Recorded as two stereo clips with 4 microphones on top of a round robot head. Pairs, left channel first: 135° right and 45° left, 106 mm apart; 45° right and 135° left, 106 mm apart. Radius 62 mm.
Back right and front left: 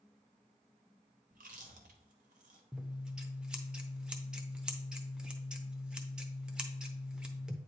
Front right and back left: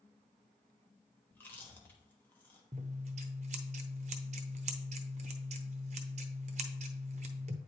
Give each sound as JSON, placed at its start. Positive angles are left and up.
{"t": 1.3, "sound": "chewing", "azimuth_deg": 25, "distance_m": 0.9}
{"t": 2.7, "sound": "scissors", "azimuth_deg": 130, "distance_m": 0.6}